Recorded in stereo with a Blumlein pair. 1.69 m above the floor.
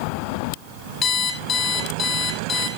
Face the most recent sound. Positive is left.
turn(degrees=25)